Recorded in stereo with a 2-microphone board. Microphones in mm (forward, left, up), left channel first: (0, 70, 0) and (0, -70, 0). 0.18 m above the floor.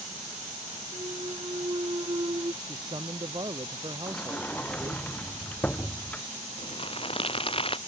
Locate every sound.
0.9 s a clunk: 35° right (ahead or behind)
2.6 s a man speaking: 35° right (ahead or behind)
4.1 s a sliding door: 10° left (ahead or behind)
6.6 s crumpling: 40° left (ahead or behind)